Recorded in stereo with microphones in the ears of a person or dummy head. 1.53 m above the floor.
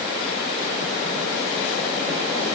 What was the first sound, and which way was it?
Only background noise.